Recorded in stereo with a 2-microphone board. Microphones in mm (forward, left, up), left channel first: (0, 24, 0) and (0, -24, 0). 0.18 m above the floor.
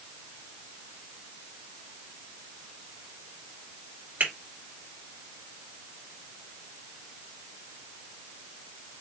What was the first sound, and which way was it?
A finger snap, 40° right (ahead or behind).